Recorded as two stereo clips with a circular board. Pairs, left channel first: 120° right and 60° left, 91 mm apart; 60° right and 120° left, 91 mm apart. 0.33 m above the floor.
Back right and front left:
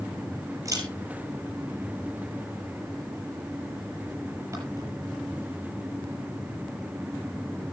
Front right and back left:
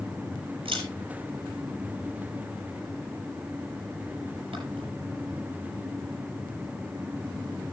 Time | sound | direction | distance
0.7 | a camera shutter | 115° left | 7.5 m